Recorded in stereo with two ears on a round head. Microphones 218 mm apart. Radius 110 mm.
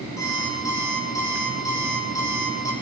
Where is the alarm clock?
15° left (ahead or behind), 10 m.